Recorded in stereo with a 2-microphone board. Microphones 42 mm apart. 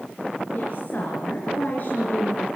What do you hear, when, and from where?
0.5 s a woman speaking: 40° left (ahead or behind), 5 m